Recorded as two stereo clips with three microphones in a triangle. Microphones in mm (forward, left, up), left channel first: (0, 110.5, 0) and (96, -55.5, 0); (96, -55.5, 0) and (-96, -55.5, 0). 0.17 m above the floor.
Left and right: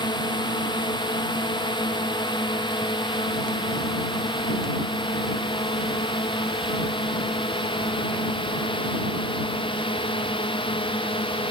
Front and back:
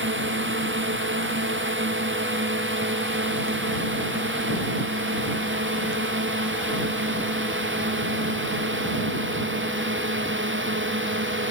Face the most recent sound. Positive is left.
turn(degrees=-175)